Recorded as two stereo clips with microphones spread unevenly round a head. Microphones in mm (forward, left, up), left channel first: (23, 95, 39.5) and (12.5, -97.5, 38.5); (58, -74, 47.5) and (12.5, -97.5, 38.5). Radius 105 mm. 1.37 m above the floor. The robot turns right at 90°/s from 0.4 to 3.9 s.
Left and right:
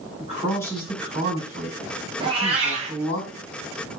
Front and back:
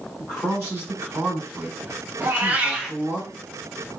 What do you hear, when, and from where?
0.2 s a man speaking: 145° left, 1.9 m; by 3.2 s 35° left, 1.9 m
2.2 s a cat meowing: 140° right, 0.6 m; by 3.0 s 70° right, 0.6 m